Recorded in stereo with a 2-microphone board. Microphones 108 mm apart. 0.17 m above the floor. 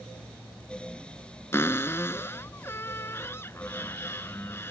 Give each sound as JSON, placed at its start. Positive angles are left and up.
{"t": 1.5, "sound": "a cupboard door", "side_deg": 25}